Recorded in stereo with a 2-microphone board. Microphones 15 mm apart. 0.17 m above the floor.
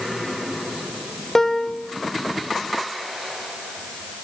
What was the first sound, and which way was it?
A piano, 25° left (ahead or behind).